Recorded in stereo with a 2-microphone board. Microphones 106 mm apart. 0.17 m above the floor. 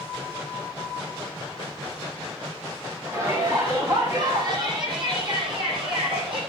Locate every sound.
3.1 s a shout: 30° right (ahead or behind), 7.5 m; by 6.4 s 55° right (ahead or behind), 8 m